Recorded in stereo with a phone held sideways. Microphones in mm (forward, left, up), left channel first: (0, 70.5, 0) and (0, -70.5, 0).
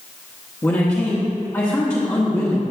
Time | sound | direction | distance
0.6 | a man speaking | 20° left (ahead or behind) | 1.4 m